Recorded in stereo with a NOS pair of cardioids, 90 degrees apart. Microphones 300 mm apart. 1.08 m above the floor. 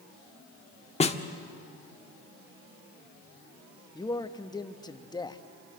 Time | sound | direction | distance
1.0 | a snare drum | 20° left | 1.5 m
4.0 | a man speaking | 15° left | 1.3 m